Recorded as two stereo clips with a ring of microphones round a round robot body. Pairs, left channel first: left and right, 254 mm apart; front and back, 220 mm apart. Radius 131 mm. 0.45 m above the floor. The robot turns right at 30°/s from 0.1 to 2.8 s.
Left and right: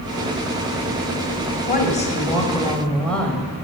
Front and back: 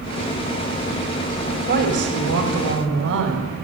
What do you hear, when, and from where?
1.7 s a woman speaking: 140° left, 2 m; by 3.5 s 175° left, 2 m